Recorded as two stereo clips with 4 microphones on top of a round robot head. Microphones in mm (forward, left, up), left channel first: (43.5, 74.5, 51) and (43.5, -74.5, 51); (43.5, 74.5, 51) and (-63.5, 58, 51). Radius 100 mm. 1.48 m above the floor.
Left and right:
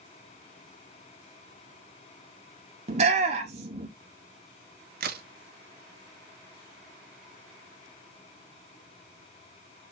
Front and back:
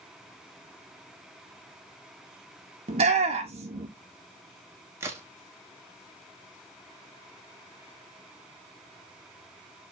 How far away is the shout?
About 1.1 m.